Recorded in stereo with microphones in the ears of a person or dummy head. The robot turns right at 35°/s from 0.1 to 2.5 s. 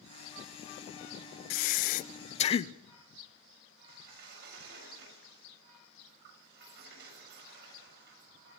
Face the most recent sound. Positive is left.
turn(degrees=-65)  # may be behind; listen again after turning